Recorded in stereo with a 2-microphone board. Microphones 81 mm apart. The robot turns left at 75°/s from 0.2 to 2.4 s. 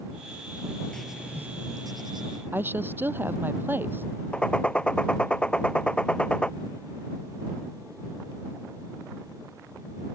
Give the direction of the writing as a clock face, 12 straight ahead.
12 o'clock.